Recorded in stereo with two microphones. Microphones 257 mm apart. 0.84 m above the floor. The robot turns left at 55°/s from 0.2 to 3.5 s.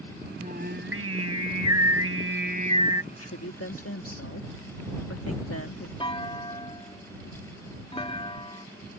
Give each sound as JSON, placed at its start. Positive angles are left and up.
{"t": 0.4, "sound": "singing", "azimuth_deg": -25}
{"t": 3.1, "sound": "a woman speaking", "side_deg": 60}
{"t": 6.0, "sound": "a clunk", "side_deg": 20}